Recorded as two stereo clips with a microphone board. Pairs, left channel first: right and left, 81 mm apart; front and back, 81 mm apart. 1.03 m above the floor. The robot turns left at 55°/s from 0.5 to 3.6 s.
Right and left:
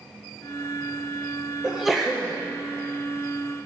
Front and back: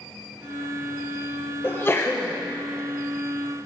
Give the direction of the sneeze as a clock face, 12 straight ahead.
11 o'clock.